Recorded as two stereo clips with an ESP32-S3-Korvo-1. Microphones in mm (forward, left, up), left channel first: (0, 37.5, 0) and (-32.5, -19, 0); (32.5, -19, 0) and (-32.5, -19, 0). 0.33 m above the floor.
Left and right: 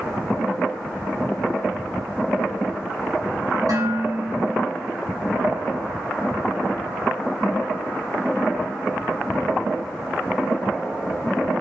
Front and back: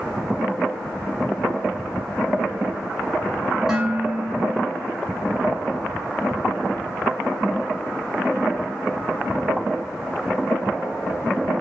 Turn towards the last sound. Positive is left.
turn(degrees=-100)